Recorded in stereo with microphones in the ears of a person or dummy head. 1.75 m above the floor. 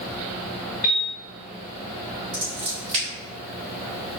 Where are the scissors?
30° right (ahead or behind), 1.7 m.